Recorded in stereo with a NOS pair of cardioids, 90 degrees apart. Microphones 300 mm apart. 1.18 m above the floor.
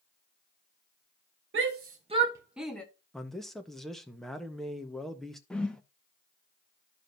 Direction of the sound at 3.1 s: Straight ahead.